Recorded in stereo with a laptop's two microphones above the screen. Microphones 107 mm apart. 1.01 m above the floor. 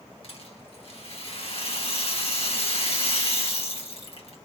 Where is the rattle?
65° left (ahead or behind), 1.5 m.